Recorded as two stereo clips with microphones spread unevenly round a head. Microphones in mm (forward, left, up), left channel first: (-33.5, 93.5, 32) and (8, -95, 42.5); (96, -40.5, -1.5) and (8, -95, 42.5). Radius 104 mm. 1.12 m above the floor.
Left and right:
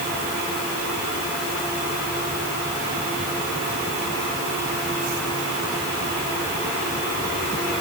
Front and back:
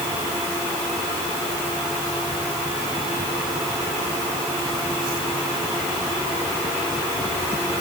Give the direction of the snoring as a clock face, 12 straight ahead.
No snoring in this recording.